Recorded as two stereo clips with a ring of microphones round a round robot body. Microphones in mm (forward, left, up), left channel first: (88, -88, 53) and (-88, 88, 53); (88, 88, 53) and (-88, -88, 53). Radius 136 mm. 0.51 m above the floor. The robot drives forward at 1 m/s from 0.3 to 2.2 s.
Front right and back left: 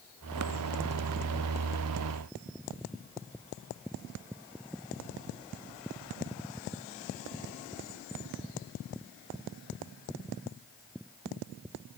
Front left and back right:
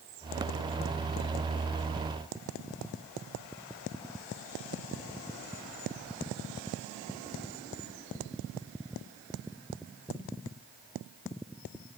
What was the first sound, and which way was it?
Only background noise.